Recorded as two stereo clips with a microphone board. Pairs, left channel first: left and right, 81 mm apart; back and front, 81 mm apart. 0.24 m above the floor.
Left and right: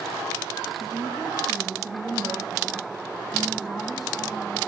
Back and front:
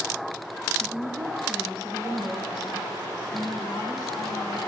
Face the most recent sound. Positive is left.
turn(degrees=180)